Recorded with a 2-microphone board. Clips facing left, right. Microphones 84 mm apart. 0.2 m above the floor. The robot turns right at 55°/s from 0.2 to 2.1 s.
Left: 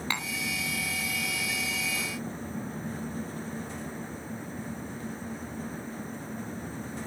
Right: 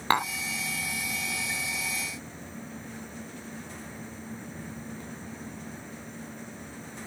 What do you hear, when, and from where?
0.1 s tapping: 55° right (ahead or behind)